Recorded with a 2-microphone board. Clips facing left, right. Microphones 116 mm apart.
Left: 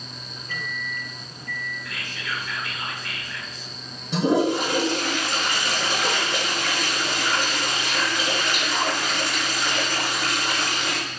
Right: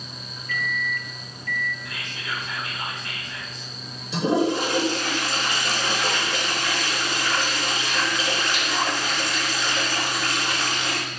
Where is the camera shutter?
No camera shutter in this recording.